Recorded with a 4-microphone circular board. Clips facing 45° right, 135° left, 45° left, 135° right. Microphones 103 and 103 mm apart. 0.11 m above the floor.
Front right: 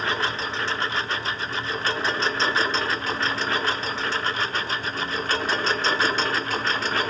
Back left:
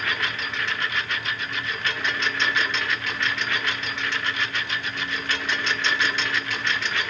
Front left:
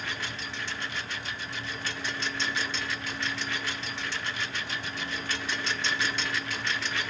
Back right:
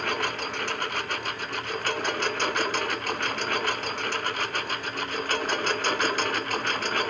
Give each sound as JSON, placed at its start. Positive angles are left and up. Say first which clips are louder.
{"t": 0.0, "sound": "a lawn mower", "louder": "front right 3 dB, back right 8 dB", "azimuth_deg": -105}